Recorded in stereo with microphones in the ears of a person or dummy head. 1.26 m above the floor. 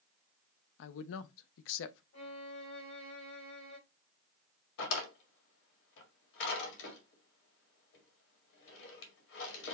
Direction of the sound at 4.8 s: 75° left (ahead or behind).